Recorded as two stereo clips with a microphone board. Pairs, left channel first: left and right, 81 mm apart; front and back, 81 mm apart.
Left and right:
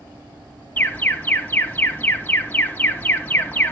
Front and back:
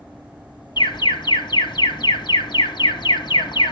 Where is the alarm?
20° left, 1.1 m.